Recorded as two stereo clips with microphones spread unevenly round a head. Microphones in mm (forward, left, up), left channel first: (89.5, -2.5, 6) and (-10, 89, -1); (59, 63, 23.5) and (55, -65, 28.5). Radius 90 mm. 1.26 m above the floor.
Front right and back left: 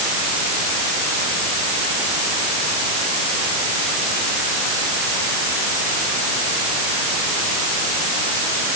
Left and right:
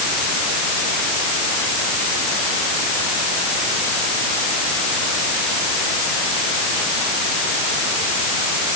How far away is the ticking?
No ticking in this recording.